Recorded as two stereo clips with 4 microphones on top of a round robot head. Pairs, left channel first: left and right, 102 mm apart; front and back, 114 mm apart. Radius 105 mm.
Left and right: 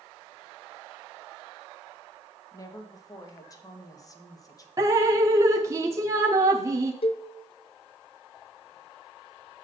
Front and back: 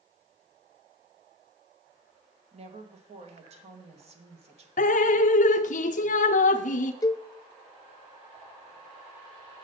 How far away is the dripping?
About 0.6 m.